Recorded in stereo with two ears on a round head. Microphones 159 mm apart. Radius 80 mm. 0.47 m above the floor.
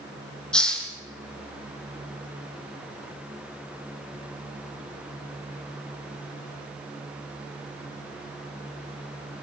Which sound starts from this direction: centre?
A hiss, at 0.5 s.